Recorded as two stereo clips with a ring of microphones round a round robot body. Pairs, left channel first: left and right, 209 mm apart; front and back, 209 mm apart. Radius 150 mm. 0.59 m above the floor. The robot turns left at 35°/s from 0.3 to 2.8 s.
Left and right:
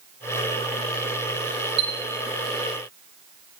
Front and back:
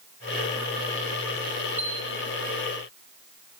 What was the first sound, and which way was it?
A chime, 100° right.